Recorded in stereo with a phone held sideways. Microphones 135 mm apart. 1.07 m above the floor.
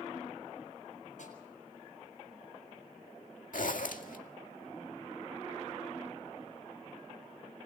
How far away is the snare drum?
About 7 m.